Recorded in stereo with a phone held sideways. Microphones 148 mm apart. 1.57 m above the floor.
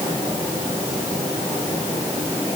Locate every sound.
Only background noise.